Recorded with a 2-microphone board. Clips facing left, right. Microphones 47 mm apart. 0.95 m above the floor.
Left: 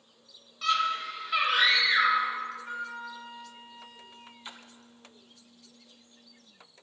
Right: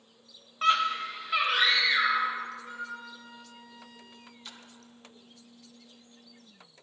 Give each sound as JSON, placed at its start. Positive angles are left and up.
{"t": 0.6, "sound": "a scream", "side_deg": -40, "distance_m": 0.9}
{"t": 2.6, "sound": "a flute", "side_deg": 30, "distance_m": 1.0}
{"t": 4.5, "sound": "a splash", "side_deg": 25, "distance_m": 0.5}